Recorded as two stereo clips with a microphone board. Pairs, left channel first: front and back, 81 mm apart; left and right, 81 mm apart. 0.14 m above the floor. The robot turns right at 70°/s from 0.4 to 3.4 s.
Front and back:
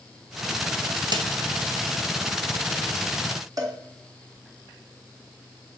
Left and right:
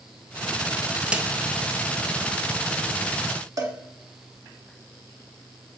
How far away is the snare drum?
About 0.8 m.